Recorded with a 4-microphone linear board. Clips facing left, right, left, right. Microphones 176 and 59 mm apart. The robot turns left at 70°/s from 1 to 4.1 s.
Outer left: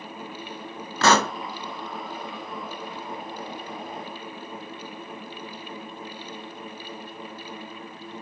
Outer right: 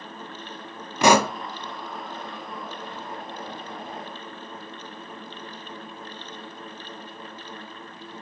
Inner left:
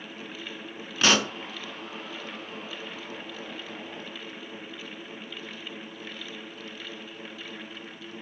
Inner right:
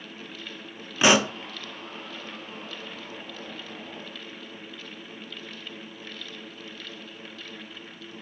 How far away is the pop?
About 0.6 m.